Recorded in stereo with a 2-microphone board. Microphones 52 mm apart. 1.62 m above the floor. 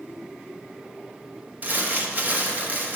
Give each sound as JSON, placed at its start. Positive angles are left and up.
{"t": 1.6, "sound": "crumpling", "side_deg": -35, "distance_m": 1.2}